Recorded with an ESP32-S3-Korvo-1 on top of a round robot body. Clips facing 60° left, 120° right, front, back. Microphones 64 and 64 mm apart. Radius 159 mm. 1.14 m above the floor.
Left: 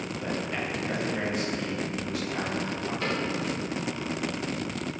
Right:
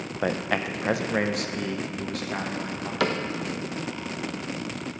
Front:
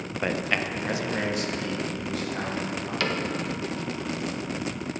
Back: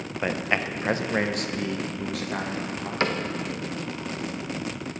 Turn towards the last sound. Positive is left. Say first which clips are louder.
# right 6 dB, back 3 dB
turn(degrees=-120)